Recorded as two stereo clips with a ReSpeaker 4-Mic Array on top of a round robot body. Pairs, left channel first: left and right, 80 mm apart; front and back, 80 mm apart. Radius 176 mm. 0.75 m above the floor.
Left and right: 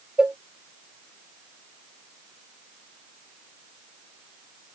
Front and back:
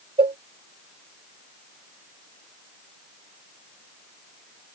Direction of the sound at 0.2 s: 175° right.